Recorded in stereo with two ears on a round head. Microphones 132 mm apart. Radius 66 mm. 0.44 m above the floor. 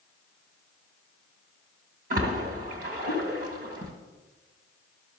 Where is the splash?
60° right (ahead or behind), 2 m.